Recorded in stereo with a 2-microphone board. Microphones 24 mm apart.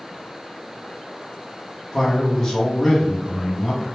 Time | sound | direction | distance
1.9 | a man speaking | 15° left (ahead or behind) | 0.9 m